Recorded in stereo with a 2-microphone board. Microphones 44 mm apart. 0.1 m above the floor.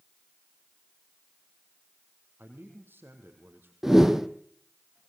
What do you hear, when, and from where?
2.4 s a man speaking: 55° right (ahead or behind), 4 m
3.8 s a whoosh: 10° right (ahead or behind), 1.2 m